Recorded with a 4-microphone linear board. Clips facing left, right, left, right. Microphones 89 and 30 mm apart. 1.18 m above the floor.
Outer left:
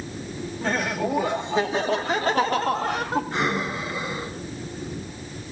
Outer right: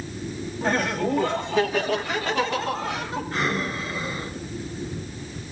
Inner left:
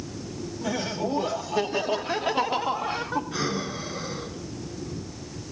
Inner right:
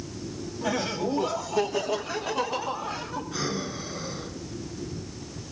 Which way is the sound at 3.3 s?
25° left (ahead or behind).